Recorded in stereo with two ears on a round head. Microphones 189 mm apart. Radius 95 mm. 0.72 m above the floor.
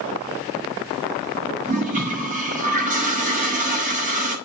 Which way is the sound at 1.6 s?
40° right (ahead or behind).